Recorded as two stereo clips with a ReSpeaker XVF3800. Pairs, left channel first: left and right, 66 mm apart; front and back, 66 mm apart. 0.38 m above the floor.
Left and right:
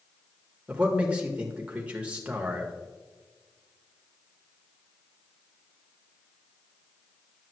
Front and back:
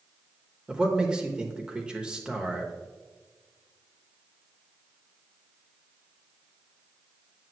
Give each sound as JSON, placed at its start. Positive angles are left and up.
{"t": 0.7, "sound": "a man speaking", "azimuth_deg": -130, "distance_m": 0.8}